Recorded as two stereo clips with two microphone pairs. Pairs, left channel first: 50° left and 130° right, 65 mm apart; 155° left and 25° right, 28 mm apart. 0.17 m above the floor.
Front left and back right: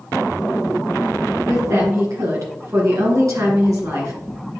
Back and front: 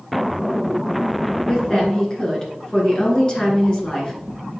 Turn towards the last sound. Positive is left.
turn(degrees=-145)